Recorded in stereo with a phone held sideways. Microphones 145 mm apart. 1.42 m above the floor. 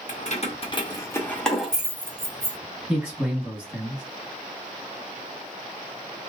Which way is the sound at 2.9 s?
15° right (ahead or behind).